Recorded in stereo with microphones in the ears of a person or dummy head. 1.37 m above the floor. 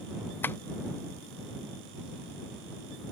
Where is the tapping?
5° left (ahead or behind).